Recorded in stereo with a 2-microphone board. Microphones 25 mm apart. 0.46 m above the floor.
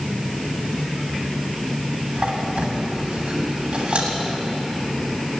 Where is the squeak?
55° right (ahead or behind), 1.4 m.